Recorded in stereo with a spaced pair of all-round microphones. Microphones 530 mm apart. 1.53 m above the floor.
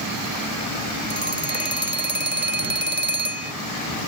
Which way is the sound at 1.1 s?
20° right (ahead or behind).